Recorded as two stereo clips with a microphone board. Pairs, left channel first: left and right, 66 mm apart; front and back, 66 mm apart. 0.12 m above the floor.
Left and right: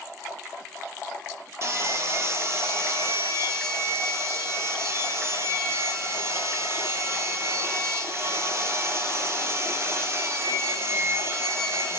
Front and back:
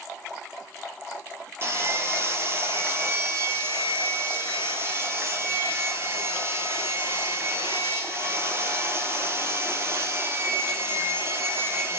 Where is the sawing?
130° right, 0.5 m.